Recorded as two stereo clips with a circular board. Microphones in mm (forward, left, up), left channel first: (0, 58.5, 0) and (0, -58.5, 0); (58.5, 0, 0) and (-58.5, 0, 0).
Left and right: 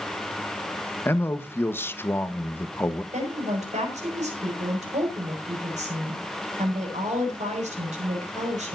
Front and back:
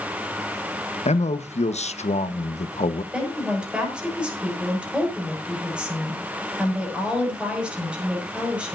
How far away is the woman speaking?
About 6 m.